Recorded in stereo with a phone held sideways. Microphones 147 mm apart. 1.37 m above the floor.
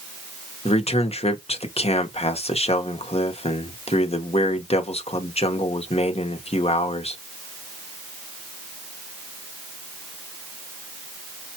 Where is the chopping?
No chopping in this recording.